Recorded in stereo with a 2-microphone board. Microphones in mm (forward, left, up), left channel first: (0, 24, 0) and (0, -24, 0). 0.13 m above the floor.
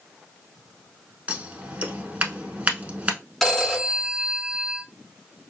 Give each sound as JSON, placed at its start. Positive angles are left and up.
{"t": 1.3, "sound": "scissors", "side_deg": -30, "distance_m": 0.8}
{"t": 3.4, "sound": "a phone ringing", "side_deg": 5, "distance_m": 0.7}